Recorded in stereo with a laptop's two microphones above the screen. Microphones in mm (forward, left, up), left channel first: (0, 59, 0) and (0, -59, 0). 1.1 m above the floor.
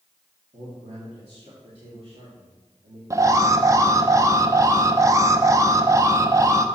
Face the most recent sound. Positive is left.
turn(degrees=-30)  # may be behind; listen again after turning